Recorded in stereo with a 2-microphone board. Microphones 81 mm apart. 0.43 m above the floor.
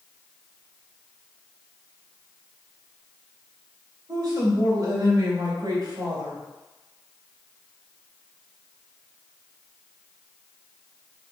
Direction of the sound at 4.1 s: 55° right (ahead or behind).